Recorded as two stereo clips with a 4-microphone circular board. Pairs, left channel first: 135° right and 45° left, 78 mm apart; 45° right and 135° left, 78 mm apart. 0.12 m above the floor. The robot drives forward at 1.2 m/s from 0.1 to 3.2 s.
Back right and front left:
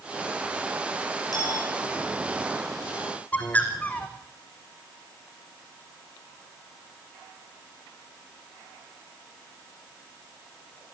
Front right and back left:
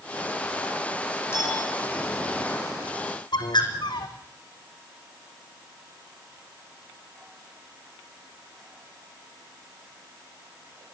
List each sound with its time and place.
1.3 s a clink: 105° right, 6 m
3.3 s a bird: 65° right, 2.5 m